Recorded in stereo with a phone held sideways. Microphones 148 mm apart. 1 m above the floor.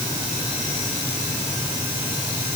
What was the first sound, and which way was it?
Only background noise.